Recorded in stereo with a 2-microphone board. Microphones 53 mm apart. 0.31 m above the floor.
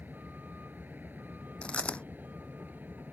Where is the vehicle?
35° right (ahead or behind).